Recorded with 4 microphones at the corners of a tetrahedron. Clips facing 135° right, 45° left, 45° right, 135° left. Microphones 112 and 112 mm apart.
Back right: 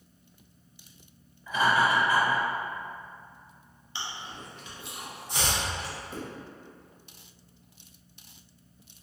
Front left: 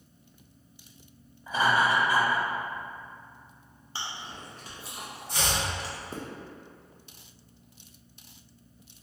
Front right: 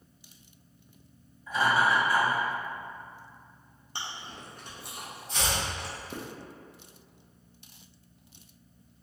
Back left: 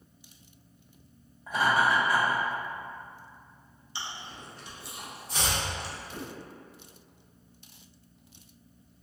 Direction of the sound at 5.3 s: 165° left.